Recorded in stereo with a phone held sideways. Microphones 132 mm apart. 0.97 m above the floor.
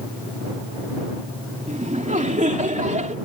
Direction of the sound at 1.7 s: 70° right (ahead or behind).